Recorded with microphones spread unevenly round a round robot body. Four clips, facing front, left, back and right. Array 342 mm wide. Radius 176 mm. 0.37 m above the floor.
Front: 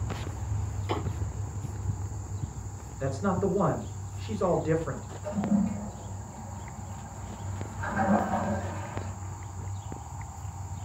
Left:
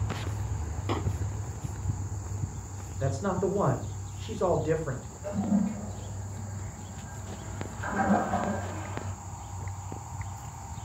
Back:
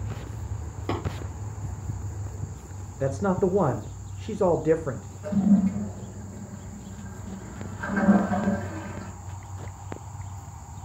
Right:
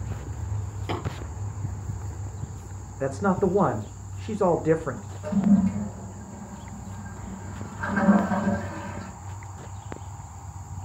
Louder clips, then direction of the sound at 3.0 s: Right 5 dB, back 4 dB; 145° right.